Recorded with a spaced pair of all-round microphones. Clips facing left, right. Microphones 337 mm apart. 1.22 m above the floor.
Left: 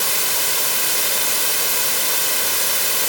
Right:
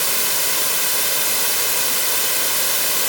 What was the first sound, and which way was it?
Only background noise.